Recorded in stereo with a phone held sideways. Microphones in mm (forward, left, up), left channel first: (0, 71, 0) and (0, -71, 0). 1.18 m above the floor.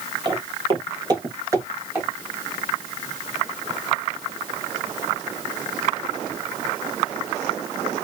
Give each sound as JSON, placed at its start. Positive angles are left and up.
{"t": 0.2, "sound": "footsteps", "side_deg": -35, "distance_m": 1.6}